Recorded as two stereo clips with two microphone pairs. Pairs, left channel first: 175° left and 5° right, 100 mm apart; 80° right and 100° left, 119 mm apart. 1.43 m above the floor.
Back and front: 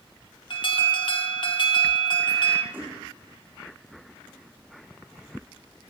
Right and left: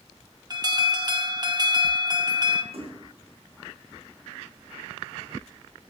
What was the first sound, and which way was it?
An alarm, 150° left.